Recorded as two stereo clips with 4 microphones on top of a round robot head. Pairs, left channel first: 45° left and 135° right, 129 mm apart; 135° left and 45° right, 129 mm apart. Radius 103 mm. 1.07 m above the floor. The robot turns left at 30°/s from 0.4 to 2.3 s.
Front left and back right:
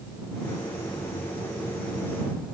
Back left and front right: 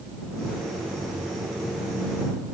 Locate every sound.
Only background noise.